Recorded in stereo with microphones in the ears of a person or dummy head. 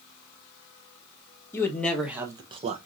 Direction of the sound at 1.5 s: 15° left (ahead or behind).